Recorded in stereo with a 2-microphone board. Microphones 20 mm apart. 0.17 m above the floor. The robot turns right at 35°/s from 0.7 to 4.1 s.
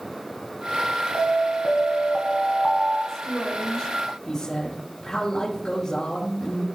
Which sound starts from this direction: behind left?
An alarm, at 1.1 s.